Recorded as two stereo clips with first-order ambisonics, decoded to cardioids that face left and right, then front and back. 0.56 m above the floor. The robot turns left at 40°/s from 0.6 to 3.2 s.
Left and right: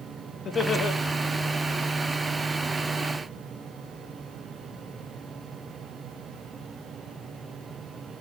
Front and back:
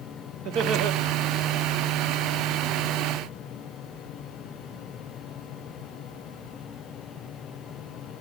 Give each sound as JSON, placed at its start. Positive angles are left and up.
{"t": 0.5, "sound": "laughter", "azimuth_deg": 150, "distance_m": 2.5}